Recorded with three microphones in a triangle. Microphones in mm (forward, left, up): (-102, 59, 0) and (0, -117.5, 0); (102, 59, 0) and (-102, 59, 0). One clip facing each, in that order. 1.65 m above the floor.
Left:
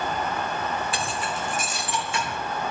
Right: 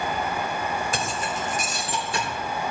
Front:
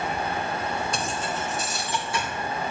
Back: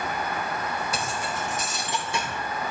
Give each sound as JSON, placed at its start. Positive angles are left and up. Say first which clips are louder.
{"t": 0.9, "sound": "keys jangling", "louder": "right 1 dB, front 1 dB", "azimuth_deg": -95, "distance_m": 1.4}